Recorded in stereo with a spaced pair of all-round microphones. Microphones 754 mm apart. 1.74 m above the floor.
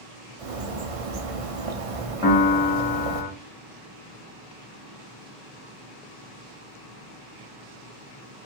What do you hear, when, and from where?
0.4 s a bird: 50° right (ahead or behind), 0.6 m
2.2 s a piano: 30° left (ahead or behind), 1.5 m